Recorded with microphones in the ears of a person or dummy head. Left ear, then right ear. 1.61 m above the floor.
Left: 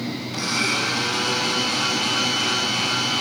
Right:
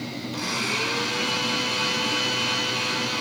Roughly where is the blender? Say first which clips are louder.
Left 4 dB; centre.